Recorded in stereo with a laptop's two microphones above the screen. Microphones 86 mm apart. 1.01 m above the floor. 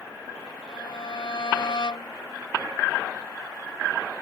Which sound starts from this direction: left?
A violin, at 0.7 s.